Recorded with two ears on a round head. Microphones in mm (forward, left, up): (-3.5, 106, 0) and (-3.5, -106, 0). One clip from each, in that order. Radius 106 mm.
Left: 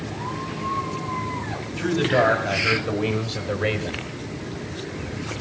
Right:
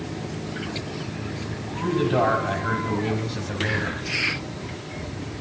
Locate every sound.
1.8 s a man speaking: 45° left (ahead or behind), 3 m; by 4.0 s 25° left (ahead or behind), 1.8 m